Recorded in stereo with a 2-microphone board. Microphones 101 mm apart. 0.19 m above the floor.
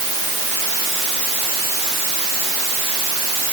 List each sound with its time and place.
Only background noise.